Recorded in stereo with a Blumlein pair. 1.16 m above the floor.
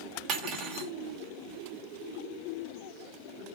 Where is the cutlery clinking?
40° right, 1.2 m.